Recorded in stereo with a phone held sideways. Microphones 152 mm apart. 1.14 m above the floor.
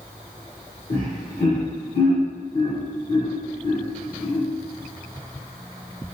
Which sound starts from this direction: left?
Laughter, at 0.9 s.